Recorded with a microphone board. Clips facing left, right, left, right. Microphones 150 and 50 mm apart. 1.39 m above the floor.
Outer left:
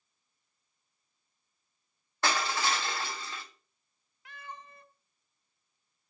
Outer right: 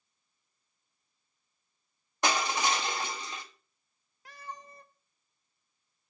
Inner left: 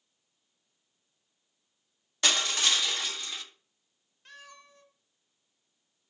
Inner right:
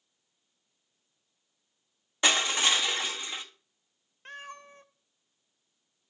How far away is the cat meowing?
About 0.7 m.